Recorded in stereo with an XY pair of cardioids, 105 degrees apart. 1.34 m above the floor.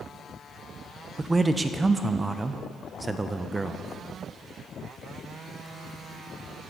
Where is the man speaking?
20° right, 0.5 m.